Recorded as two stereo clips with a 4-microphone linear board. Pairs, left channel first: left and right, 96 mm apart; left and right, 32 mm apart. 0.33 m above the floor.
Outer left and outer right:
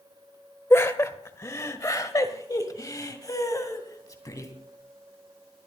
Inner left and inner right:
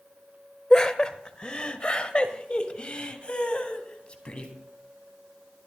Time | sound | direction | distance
0.7 | laughter | 25° left (ahead or behind) | 1.1 m